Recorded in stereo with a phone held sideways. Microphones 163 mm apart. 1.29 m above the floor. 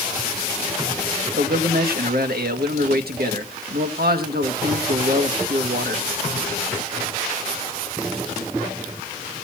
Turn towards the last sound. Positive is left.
turn(degrees=-80)